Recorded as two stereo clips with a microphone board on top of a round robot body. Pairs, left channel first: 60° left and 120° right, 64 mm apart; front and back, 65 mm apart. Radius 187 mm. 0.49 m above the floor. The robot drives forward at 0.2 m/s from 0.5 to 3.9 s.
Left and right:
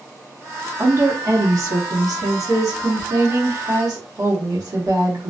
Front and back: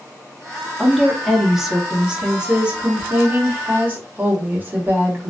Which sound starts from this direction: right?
A woman speaking, at 0.8 s.